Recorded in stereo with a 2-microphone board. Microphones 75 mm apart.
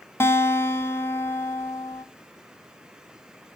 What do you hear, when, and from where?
0.2 s a guitar: 35° left (ahead or behind), 0.6 m